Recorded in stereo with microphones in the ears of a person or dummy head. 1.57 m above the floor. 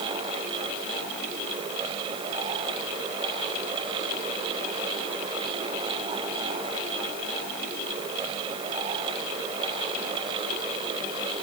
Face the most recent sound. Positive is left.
No sound to turn to.